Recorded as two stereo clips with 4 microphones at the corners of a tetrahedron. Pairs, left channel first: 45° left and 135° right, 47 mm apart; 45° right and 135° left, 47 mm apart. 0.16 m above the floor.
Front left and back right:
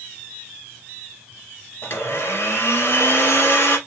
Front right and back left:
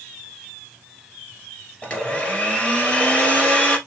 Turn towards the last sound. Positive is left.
turn(degrees=20)